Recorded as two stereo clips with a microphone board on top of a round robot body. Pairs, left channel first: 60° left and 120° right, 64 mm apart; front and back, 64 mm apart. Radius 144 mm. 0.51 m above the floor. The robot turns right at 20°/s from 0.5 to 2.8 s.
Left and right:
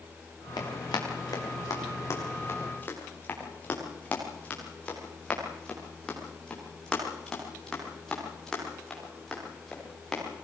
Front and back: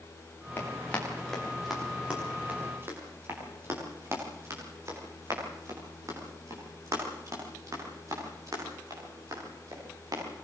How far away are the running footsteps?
About 7 m.